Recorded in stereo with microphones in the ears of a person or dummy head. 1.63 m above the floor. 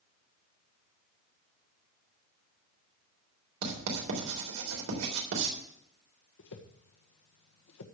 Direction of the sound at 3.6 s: 75° right (ahead or behind).